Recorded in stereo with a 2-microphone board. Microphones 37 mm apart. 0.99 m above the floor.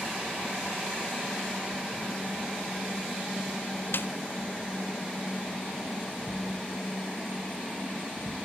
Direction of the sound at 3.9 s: 75° left (ahead or behind).